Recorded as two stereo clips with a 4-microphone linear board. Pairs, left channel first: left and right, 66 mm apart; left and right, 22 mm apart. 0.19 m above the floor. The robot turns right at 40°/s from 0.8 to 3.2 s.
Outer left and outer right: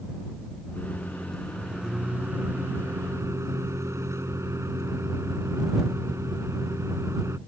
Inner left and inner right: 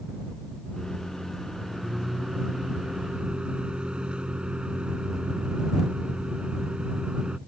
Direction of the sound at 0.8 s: 150° left.